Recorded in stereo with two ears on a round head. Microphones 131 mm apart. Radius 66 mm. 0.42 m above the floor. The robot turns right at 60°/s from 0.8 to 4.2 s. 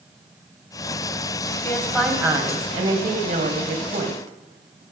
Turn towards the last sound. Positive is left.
turn(degrees=-50)